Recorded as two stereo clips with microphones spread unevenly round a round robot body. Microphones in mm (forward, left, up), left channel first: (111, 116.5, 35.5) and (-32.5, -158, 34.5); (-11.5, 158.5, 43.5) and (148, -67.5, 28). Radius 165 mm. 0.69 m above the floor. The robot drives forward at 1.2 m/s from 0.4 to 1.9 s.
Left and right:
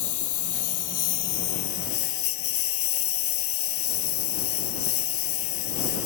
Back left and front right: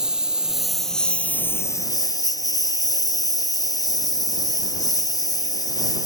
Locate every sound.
0.0 s a lawn mower: 35° left; by 6.0 s 50° left